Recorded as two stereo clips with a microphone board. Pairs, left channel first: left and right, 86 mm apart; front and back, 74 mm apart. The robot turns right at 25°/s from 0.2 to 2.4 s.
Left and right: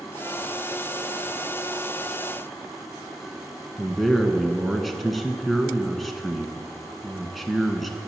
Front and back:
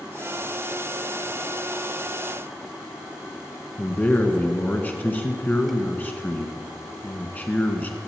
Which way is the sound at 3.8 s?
Straight ahead.